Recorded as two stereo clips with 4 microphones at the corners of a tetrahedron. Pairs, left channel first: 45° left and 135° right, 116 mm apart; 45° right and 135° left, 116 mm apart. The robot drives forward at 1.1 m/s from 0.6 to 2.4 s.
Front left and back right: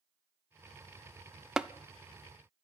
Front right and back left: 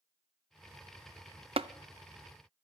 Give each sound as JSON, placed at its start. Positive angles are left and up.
{"t": 1.6, "sound": "tapping", "azimuth_deg": 140, "distance_m": 0.5}